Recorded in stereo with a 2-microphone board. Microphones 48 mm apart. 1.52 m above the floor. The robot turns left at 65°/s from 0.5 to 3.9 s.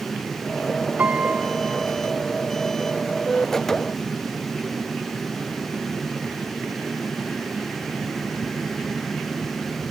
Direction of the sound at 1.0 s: 80° right.